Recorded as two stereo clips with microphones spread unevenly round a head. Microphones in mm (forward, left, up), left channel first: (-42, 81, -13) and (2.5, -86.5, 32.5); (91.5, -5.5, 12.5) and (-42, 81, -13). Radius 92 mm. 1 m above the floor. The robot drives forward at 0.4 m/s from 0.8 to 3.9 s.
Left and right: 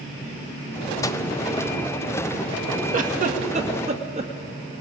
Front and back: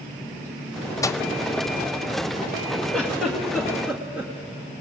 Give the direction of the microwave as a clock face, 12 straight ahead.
11 o'clock.